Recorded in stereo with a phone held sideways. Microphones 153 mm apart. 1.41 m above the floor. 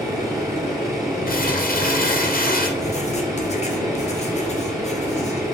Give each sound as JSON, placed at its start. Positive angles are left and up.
{"t": 0.0, "sound": "a machine running", "side_deg": -25, "distance_m": 1.7}
{"t": 1.3, "sound": "crumpling", "side_deg": 70, "distance_m": 0.6}
{"t": 2.8, "sound": "writing", "side_deg": 45, "distance_m": 0.6}